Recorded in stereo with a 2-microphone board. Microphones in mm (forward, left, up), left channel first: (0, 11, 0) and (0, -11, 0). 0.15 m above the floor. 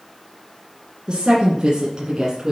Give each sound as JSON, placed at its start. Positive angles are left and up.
{"t": 1.1, "sound": "a woman speaking", "side_deg": -45, "distance_m": 2.0}